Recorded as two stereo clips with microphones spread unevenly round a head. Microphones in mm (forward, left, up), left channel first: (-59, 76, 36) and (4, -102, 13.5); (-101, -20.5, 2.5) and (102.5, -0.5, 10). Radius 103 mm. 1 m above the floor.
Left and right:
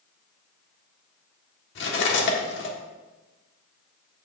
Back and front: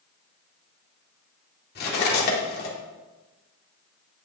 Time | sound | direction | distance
1.8 | cutlery clinking | 140° left | 1.6 m